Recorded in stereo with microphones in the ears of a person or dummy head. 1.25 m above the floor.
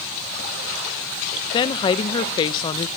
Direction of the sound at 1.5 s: 25° left (ahead or behind).